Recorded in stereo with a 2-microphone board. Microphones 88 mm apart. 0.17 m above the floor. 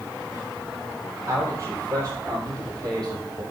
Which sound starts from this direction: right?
A man speaking, at 1.2 s.